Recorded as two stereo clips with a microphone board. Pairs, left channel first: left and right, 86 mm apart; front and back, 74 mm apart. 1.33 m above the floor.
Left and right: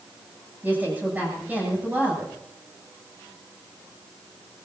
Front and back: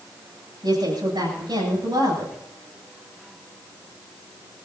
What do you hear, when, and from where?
0.6 s a woman speaking: 160° right, 9.5 m